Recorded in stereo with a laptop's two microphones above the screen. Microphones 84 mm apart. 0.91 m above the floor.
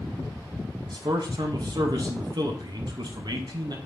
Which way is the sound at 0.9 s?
55° right (ahead or behind).